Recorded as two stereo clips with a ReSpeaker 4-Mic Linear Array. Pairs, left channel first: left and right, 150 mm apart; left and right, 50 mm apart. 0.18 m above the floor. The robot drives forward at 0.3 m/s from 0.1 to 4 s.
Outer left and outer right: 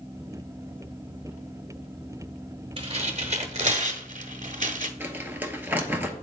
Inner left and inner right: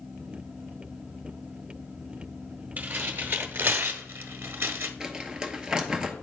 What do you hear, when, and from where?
2.8 s tearing paper: 40° right (ahead or behind), 1.1 m; by 4.9 s 55° right (ahead or behind), 0.8 m
5.0 s crumpling: 15° right (ahead or behind), 0.9 m